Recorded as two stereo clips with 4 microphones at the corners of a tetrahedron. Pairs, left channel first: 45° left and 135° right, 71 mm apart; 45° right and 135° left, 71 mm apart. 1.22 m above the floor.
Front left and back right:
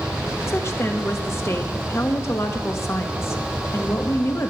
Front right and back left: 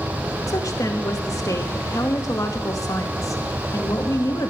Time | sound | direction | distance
0.5 | a woman speaking | 5° right | 2 m